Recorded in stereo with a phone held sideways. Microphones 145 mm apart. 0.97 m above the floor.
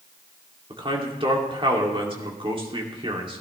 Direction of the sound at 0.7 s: 35° right (ahead or behind).